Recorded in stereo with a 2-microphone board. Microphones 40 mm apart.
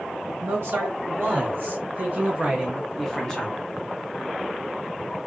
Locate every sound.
0.4 s a man speaking: 65° right (ahead or behind), 1.8 m; by 3.6 s 30° left (ahead or behind), 0.9 m